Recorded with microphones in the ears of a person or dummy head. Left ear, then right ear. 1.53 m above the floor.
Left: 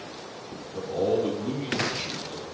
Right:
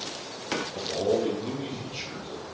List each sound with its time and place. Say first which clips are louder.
0.7 s a man speaking: left 3 dB; 5° right (ahead or behind), 3.5 m